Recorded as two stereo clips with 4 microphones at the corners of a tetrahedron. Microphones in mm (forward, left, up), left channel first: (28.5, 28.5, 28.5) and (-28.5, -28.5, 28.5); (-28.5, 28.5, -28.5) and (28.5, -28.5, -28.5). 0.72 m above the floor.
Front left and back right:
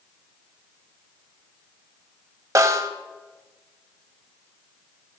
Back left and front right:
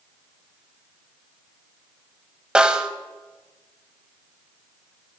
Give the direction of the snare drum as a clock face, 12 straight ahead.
4 o'clock.